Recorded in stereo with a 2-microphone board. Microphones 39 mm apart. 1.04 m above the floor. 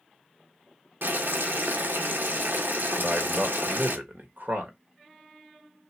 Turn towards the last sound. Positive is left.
turn(degrees=-60)  # may be behind; listen again after turning